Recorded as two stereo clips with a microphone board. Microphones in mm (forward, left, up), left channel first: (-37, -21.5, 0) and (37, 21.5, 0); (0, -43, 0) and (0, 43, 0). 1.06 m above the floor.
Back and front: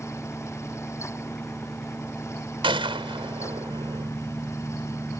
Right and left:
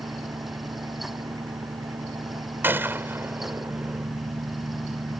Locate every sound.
0.0 s an engine running: 130° left
2.6 s a gunshot: 25° left